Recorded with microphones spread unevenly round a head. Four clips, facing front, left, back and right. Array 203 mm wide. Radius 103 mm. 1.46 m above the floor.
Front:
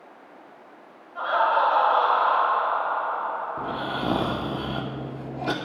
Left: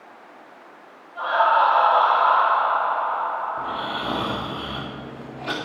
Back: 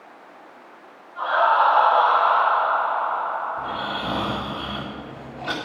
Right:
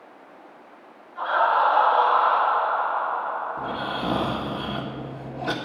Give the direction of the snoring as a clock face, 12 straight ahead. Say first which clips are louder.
Left 1 dB, back 1 dB; 1 o'clock.